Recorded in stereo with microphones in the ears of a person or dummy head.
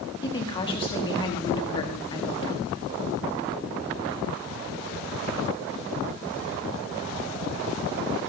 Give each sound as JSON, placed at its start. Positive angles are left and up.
{"t": 0.2, "sound": "a woman speaking", "side_deg": 25, "distance_m": 1.8}